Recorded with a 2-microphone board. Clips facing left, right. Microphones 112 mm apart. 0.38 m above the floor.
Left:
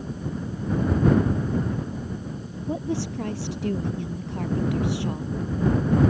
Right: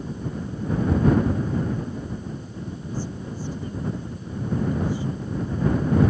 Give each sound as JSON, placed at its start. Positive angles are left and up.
{"t": 2.7, "sound": "a woman speaking", "side_deg": 75}